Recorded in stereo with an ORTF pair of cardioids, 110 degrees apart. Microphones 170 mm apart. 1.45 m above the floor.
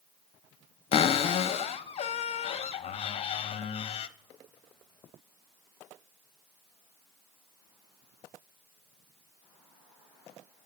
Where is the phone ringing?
I don't hear a phone ringing.